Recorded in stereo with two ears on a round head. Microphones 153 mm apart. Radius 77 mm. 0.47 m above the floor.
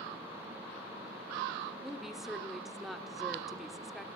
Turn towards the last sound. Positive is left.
turn(degrees=0)  # may be behind; listen again after turning